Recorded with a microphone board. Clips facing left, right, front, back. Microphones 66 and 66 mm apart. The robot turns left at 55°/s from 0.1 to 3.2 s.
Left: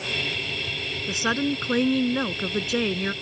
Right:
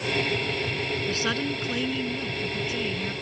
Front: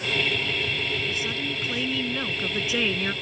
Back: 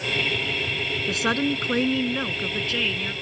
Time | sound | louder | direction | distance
1.1 | a woman speaking | left 7 dB, back 6 dB | 170° left | ?